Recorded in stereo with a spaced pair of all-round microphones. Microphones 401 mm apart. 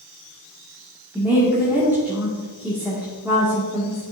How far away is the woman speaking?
About 2.0 m.